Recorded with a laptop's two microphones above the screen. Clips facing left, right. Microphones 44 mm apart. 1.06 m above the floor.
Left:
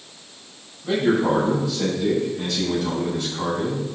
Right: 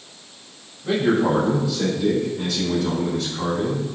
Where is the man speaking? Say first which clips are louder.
Even; 30° right (ahead or behind), 3 m; by 3.9 s 10° left (ahead or behind), 5 m.